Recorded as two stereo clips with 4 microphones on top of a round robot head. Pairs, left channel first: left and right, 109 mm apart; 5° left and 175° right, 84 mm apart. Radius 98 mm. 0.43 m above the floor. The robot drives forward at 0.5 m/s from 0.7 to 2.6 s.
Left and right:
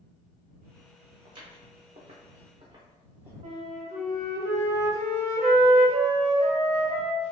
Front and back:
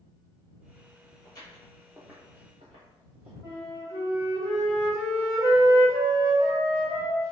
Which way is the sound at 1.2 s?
50° right.